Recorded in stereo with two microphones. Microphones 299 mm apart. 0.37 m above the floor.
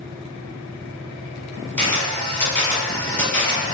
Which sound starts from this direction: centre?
A camera shutter, at 1.8 s.